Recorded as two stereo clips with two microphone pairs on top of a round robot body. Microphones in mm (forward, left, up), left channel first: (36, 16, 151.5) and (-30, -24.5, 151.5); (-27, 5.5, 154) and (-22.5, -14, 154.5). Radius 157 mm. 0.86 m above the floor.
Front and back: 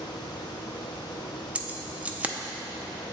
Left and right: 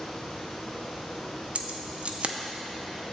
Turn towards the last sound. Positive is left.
turn(degrees=-75)